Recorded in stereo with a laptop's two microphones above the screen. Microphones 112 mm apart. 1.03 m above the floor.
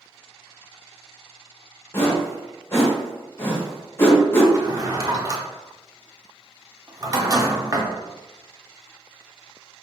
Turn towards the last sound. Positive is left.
turn(degrees=-35)  # may be behind; listen again after turning